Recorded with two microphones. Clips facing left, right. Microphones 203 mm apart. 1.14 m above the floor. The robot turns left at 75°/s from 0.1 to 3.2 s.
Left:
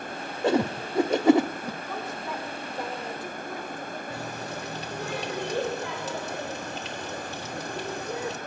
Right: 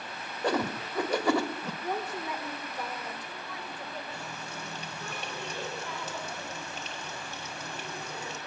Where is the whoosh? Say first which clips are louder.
Left 6 dB; 25° left (ahead or behind), 0.9 m; by 1.7 s 10° left (ahead or behind), 0.9 m.